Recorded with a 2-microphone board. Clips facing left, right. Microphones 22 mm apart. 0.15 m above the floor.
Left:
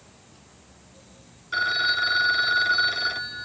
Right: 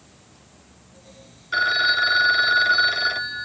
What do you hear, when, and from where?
1.5 s a phone ringing: 10° right (ahead or behind)